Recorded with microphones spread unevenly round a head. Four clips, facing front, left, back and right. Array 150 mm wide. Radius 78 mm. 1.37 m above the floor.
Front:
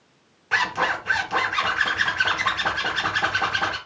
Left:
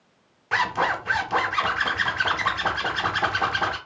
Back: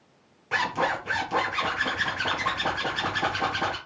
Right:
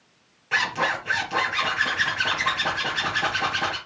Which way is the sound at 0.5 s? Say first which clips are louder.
Left 2 dB, front 2 dB; 60° left.